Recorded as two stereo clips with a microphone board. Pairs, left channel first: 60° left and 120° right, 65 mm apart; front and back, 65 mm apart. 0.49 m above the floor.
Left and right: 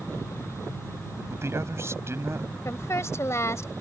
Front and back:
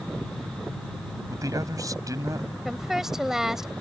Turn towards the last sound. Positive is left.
turn(degrees=100)